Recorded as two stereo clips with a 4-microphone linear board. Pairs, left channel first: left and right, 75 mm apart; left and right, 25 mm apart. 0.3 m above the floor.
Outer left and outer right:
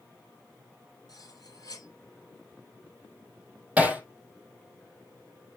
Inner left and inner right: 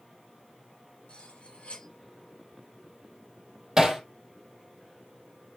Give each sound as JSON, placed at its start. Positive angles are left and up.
{"t": 1.1, "sound": "cutlery clinking", "side_deg": 50, "distance_m": 3.5}
{"t": 3.8, "sound": "hammering", "side_deg": -20, "distance_m": 2.5}